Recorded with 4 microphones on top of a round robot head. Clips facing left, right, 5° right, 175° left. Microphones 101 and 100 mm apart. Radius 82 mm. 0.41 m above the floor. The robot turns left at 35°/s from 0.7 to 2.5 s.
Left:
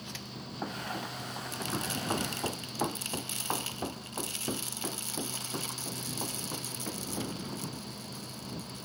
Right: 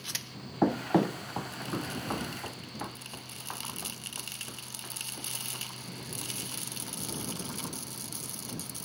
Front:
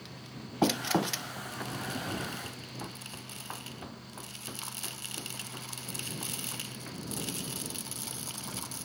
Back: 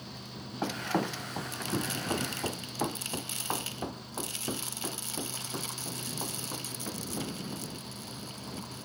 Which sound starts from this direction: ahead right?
Running footsteps, at 0.6 s.